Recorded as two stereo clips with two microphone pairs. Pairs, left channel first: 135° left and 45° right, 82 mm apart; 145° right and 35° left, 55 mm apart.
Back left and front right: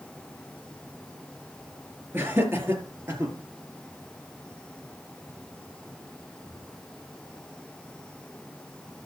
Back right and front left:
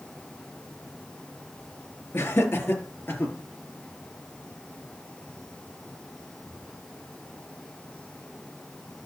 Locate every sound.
2.1 s laughter: 105° right, 5 m; by 3.3 s 95° right, 6.5 m